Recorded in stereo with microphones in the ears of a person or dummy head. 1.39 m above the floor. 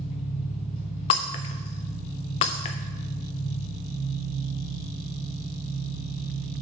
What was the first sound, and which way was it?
An engine running, 35° left (ahead or behind).